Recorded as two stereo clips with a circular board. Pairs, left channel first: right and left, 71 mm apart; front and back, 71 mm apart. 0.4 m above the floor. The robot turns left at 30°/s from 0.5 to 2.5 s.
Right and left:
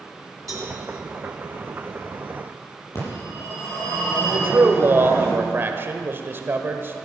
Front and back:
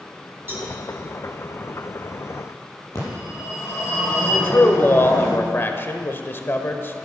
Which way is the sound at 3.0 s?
45° right.